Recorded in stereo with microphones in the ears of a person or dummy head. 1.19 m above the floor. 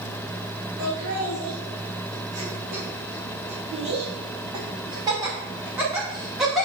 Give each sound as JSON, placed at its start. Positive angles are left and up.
{"t": 0.8, "sound": "laughter", "side_deg": -60, "distance_m": 4.0}